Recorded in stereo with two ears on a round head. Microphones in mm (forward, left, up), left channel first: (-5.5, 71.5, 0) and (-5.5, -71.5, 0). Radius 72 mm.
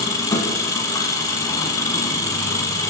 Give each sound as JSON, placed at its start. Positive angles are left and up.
{"t": 0.0, "sound": "an engine running", "side_deg": 20, "distance_m": 1.2}